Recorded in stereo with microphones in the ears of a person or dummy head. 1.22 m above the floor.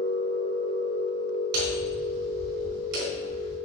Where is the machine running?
70° right (ahead or behind), 1.5 m.